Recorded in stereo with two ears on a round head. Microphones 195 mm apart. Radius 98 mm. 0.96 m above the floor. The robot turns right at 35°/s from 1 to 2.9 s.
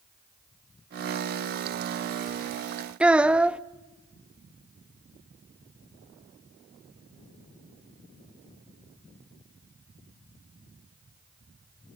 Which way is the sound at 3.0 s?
5° right (ahead or behind).